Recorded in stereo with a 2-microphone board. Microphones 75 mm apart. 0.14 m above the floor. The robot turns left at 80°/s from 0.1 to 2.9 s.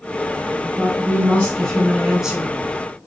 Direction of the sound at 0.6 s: 25° left (ahead or behind).